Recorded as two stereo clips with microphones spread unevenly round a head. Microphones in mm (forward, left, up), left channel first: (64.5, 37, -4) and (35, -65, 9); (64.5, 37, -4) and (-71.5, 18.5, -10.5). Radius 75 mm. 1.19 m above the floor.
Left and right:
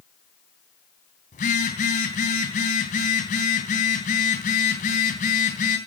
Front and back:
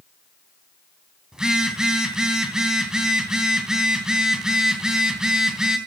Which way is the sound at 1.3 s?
105° left.